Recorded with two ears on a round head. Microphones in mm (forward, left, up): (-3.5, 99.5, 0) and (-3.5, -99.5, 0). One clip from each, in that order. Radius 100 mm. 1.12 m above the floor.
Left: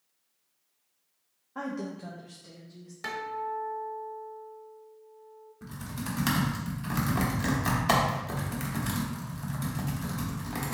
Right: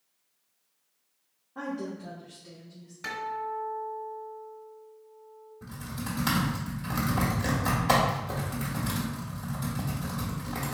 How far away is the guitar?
About 1.0 m.